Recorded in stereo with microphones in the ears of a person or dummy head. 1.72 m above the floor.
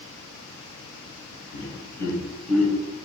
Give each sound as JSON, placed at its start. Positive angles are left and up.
{"t": 1.5, "sound": "laughter", "side_deg": 30, "distance_m": 1.1}